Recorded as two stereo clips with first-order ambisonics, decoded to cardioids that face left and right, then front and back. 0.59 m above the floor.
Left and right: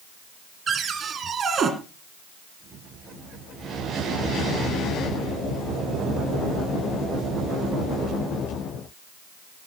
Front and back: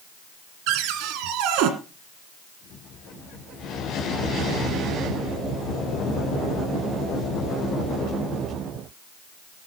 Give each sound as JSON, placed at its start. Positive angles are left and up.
{"t": 0.7, "sound": "a cupboard door", "azimuth_deg": -155, "distance_m": 2.0}